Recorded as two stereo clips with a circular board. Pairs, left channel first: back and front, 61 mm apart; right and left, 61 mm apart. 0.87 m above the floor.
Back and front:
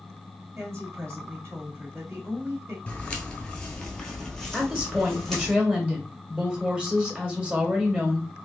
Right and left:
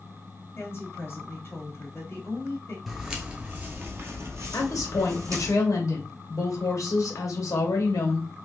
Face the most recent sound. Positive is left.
turn(degrees=-75)